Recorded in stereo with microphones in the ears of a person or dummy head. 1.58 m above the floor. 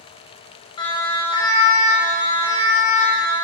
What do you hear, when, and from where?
0.8 s a siren: 25° left (ahead or behind), 9 m; by 3.3 s 30° left (ahead or behind), 10.5 m